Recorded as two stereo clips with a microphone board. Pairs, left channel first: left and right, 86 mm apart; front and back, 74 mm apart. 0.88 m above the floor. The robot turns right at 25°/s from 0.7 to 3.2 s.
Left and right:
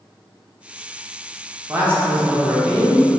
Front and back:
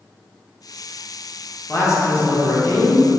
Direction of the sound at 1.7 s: 40° right.